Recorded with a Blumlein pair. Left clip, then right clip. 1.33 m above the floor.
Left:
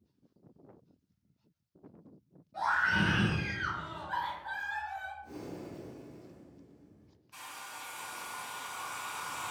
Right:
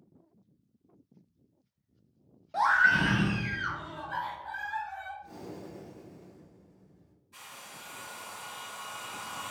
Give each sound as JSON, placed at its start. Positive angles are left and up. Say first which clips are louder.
{"t": 2.5, "sound": "a scream", "louder": "right 6 dB", "azimuth_deg": -40, "distance_m": 0.5}
{"t": 5.2, "sound": "breathing", "louder": "even", "azimuth_deg": 5, "distance_m": 1.5}
{"t": 7.3, "sound": "a hair dryer", "louder": "left 2 dB", "azimuth_deg": 70, "distance_m": 1.3}